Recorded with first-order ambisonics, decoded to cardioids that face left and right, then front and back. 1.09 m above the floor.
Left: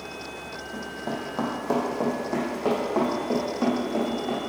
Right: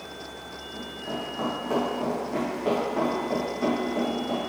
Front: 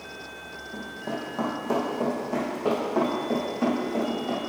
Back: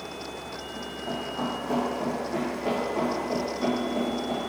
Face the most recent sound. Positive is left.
turn(degrees=70)